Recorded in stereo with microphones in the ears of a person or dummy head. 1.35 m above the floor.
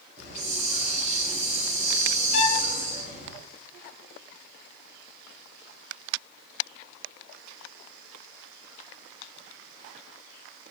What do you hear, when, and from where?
0.2 s a hiss: 50° right (ahead or behind), 6.5 m
2.3 s a violin: 25° left (ahead or behind), 4 m